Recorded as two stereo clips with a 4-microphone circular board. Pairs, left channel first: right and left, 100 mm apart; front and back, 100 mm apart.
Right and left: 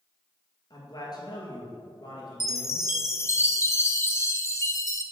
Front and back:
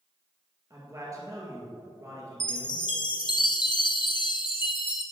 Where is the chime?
30° right, 0.9 m.